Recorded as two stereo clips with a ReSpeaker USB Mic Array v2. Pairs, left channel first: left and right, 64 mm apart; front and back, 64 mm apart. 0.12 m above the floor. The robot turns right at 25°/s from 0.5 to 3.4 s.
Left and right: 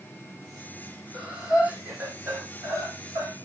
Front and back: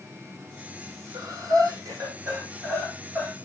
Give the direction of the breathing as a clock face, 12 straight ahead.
6 o'clock.